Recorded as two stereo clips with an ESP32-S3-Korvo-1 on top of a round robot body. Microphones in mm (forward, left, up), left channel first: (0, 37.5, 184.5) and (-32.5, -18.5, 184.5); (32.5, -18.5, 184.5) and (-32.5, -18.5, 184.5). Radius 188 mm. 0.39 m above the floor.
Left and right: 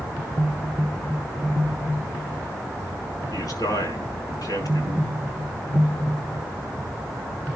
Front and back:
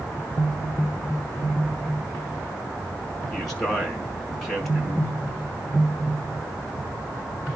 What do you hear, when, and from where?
3.3 s a man speaking: 85° left, 6.5 m